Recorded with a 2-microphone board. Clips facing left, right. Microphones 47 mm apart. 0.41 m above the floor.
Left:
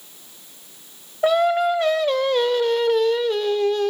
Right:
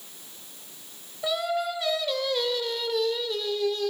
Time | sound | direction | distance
1.2 | singing | 45° left (ahead or behind) | 0.7 m